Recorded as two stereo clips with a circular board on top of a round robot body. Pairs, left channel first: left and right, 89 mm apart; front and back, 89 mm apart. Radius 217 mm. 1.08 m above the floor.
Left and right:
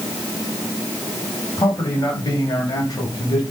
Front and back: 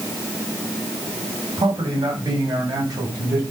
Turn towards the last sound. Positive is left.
turn(degrees=135)